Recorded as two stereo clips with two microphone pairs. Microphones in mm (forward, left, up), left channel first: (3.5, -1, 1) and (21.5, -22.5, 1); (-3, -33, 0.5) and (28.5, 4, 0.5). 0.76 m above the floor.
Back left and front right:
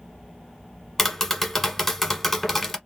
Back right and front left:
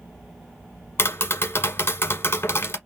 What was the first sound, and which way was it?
Tapping, 150° right.